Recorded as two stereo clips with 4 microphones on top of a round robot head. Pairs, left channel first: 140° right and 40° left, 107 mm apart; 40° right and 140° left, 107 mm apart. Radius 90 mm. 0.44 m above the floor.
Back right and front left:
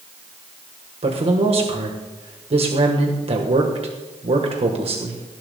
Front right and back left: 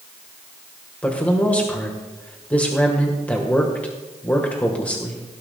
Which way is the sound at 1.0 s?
35° left.